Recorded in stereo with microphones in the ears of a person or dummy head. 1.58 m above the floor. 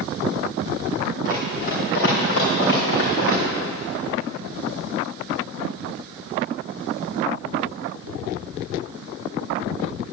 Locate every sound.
1.2 s running footsteps: 45° left (ahead or behind), 3.5 m; by 3.4 s 70° left (ahead or behind), 4.5 m